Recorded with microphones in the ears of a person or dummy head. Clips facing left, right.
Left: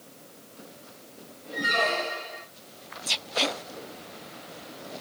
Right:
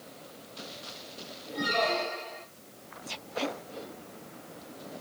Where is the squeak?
20° left (ahead or behind), 0.9 m.